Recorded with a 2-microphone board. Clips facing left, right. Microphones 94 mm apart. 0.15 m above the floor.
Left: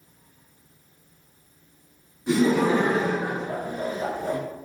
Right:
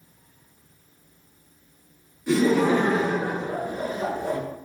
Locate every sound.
2.3 s laughter: 25° left (ahead or behind), 1.3 m; by 4.4 s 20° right (ahead or behind), 1.6 m